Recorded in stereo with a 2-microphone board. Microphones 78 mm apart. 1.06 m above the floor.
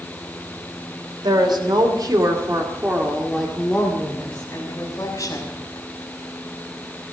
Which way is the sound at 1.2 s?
75° right (ahead or behind).